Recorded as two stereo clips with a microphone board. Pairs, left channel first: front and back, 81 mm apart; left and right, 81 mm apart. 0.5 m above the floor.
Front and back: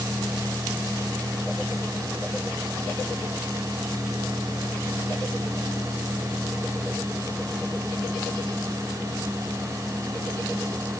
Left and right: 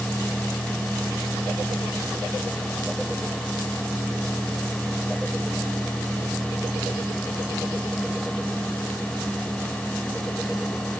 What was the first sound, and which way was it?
Only background noise.